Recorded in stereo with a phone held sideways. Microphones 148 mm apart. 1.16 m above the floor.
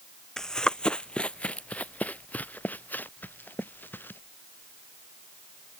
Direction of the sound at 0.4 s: 5° left (ahead or behind).